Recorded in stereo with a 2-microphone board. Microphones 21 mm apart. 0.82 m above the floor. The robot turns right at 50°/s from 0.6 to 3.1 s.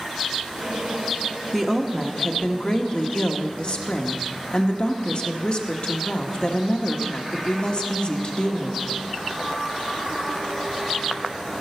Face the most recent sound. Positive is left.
turn(degrees=85)